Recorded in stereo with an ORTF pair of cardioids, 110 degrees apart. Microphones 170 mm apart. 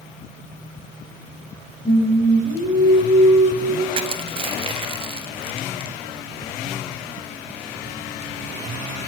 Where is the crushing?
30° right, 1.5 m.